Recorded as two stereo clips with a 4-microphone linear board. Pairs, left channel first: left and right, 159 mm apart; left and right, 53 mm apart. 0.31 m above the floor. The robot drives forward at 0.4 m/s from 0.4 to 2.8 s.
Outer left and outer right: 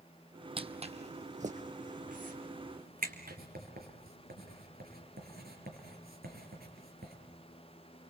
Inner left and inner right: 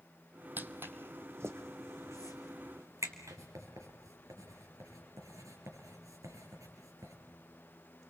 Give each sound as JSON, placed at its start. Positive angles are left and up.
{"t": 0.6, "sound": "footsteps", "side_deg": -35, "distance_m": 0.8}
{"t": 3.3, "sound": "writing", "side_deg": -75, "distance_m": 5.5}